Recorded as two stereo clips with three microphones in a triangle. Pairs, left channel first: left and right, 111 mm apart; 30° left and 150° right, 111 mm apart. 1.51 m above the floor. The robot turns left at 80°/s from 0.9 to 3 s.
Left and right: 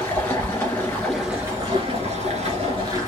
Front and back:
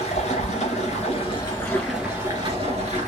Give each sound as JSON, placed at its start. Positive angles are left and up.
{"t": 0.0, "sound": "running water", "azimuth_deg": 20, "distance_m": 2.0}